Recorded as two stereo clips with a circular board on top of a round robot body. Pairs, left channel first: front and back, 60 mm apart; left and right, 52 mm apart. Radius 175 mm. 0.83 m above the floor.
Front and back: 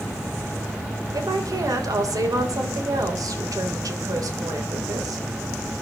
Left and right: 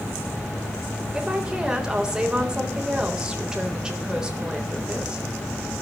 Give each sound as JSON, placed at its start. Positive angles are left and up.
{"t": 1.1, "sound": "a woman speaking", "azimuth_deg": -165, "distance_m": 3.5}